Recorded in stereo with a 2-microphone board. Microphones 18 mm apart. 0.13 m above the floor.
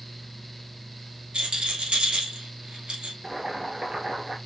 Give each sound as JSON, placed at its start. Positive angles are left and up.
{"t": 1.3, "sound": "a rattle", "side_deg": -55, "distance_m": 1.3}
{"t": 3.2, "sound": "boiling", "side_deg": -30, "distance_m": 1.1}